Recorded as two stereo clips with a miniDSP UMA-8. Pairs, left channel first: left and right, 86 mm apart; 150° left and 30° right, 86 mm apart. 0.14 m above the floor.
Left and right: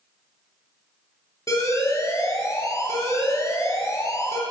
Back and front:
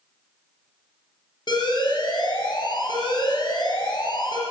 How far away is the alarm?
About 2.5 m.